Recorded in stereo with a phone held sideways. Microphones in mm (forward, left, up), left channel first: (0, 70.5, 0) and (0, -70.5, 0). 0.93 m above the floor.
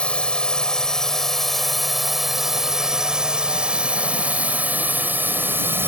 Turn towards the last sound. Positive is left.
turn(degrees=-15)  # may be behind; listen again after turning